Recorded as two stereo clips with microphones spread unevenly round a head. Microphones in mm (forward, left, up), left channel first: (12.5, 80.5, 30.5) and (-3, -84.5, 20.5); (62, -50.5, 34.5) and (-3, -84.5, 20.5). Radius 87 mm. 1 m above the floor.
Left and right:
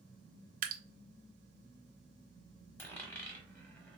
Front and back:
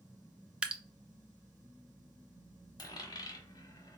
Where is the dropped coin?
5° left, 1.3 m.